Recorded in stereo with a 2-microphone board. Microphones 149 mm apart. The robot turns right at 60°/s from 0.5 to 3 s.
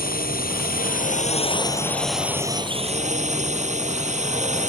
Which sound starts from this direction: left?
A drone, at 0.0 s.